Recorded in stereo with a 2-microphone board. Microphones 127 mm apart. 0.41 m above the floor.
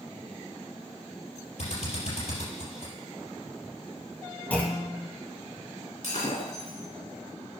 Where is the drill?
60° left (ahead or behind), 3.5 m.